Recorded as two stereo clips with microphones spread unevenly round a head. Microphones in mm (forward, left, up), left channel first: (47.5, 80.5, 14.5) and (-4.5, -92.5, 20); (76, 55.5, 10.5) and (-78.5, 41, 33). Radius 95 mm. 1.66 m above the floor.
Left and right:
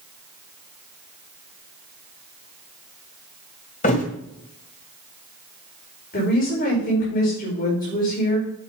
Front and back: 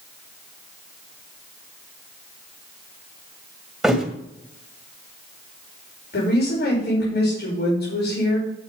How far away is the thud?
About 1.8 m.